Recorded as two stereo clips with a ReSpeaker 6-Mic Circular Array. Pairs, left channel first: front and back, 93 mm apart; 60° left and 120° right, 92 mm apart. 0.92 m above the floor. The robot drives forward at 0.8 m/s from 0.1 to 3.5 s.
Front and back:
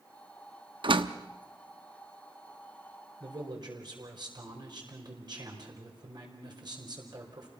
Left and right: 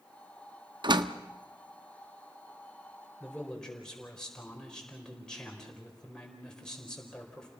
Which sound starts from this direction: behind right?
A door slam, at 0.8 s.